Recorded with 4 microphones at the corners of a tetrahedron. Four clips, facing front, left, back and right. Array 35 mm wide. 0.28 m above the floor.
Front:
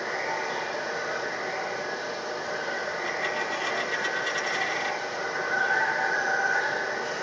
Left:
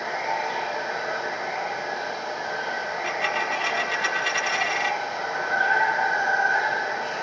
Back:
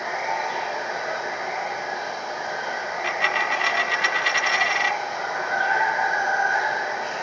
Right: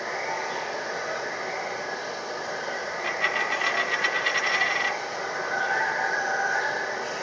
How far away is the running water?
About 1.6 m.